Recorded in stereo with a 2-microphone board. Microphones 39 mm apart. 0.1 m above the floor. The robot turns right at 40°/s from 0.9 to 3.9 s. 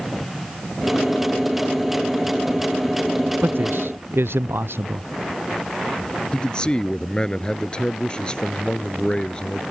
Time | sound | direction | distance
3.4 | a man speaking | 55° right (ahead or behind) | ?
6.3 | a man speaking | 20° left (ahead or behind) | ?